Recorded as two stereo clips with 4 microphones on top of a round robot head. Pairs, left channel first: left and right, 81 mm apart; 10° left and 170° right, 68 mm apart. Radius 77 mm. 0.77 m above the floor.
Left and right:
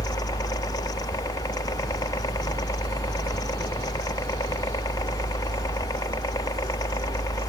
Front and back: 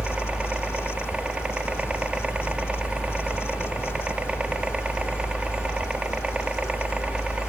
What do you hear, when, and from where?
0.0 s a helicopter: 120° left